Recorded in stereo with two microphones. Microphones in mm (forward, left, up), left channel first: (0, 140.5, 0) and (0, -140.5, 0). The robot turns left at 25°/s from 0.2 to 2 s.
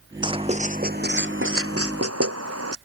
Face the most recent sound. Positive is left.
turn(degrees=-60)  # may be behind; listen again after turning